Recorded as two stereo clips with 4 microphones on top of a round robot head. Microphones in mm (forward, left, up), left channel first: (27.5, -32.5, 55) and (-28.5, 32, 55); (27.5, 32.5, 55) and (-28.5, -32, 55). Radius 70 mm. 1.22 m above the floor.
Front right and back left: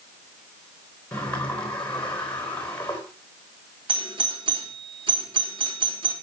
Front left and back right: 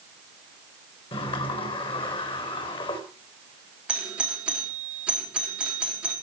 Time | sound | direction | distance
1.1 | a sliding door | 30° left | 3.5 m
3.9 | a doorbell | 150° left | 3.5 m